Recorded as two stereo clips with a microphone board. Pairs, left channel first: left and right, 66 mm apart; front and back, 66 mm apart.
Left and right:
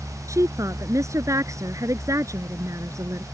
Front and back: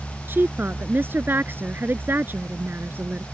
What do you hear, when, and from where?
0.3 s a woman speaking: 125° right